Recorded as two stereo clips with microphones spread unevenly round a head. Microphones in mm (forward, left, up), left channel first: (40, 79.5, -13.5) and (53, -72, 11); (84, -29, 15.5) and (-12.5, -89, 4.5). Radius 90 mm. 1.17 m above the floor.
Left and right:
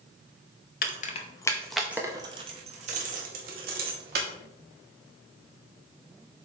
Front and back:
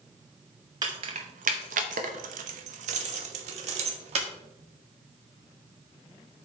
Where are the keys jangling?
140° left, 0.7 m; by 4.3 s 120° right, 1.7 m.